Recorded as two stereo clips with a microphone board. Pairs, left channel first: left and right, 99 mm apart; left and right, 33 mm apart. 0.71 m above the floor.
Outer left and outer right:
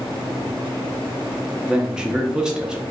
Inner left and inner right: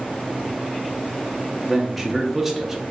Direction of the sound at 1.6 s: 10° right (ahead or behind).